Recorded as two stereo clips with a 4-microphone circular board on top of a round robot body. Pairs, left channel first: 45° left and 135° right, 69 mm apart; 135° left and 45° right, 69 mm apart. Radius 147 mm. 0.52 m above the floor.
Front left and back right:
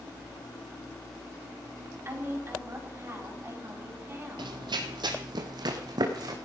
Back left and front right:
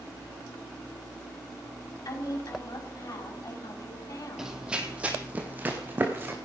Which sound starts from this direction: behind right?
Running footsteps, at 4.4 s.